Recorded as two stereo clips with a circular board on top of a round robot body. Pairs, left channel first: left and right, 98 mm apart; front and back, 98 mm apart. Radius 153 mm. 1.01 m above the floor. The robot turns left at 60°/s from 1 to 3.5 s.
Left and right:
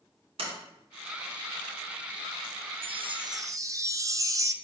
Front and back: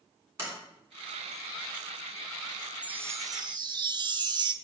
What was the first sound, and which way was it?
A sliding door, 120° right.